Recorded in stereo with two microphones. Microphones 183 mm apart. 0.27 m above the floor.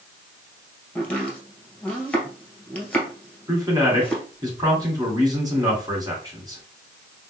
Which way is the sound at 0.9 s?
5° left (ahead or behind).